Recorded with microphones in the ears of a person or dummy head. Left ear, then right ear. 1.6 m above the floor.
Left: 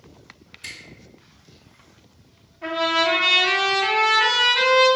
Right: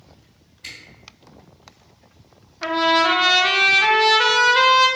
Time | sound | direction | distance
0.6 | a camera shutter | 25° left (ahead or behind) | 1.3 m
2.6 | a trumpet | 65° right (ahead or behind) | 0.6 m